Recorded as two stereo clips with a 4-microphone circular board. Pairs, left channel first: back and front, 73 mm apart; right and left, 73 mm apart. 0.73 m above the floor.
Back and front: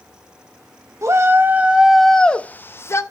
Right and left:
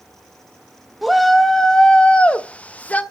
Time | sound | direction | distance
1.0 | a shout | straight ahead | 0.8 m